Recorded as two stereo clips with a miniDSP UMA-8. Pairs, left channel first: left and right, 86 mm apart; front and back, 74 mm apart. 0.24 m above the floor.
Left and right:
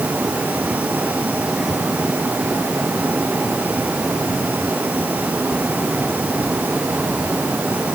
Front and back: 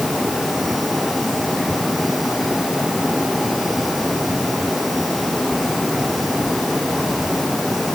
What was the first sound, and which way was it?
Only background noise.